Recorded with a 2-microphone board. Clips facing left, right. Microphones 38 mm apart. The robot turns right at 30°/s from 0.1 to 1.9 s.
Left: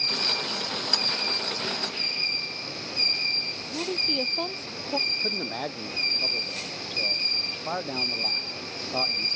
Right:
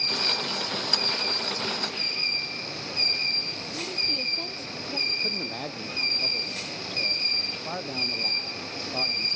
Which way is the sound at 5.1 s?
20° left (ahead or behind).